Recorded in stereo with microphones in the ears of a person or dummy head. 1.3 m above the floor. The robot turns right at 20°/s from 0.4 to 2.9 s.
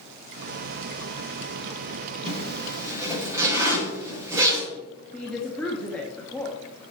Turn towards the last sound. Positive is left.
turn(degrees=10)  # may be behind; listen again after turning